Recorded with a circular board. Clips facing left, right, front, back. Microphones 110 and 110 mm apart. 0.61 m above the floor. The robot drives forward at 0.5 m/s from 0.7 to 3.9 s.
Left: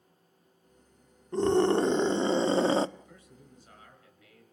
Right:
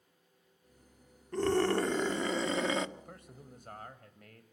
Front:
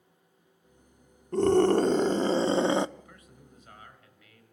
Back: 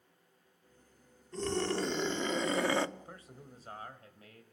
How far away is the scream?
About 1.3 m.